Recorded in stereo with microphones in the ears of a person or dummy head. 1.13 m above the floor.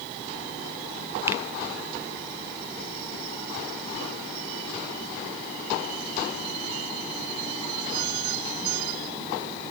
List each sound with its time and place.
1.3 s a finger snap: 10° right (ahead or behind), 0.6 m